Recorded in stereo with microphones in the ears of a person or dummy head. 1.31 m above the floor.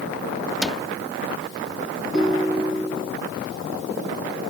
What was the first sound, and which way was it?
A cupboard door, 5° right (ahead or behind).